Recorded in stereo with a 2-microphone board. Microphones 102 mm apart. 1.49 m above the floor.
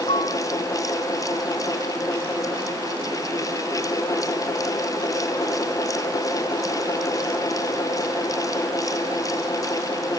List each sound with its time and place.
0.1 s a piano: 85° left